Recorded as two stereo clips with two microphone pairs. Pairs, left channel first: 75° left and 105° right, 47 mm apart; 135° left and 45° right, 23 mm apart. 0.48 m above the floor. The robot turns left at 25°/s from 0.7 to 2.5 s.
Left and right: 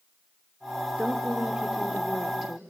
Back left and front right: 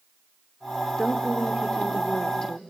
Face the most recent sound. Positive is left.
turn(degrees=160)